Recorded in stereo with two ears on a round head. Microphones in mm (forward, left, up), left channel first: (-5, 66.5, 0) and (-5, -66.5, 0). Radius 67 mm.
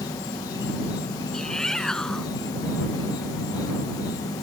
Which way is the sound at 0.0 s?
25° left (ahead or behind).